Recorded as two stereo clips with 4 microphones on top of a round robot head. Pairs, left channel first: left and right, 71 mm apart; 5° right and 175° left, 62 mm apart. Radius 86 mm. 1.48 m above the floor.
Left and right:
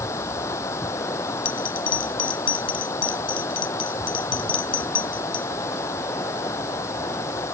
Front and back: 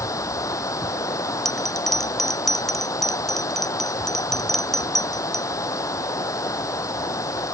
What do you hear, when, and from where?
0.0 s running water: 35° left
1.4 s a bell: 80° left